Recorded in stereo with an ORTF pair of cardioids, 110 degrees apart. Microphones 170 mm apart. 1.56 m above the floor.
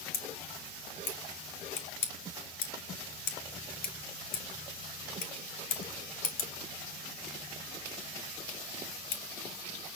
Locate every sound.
0.1 s scissors: 65° left, 2 m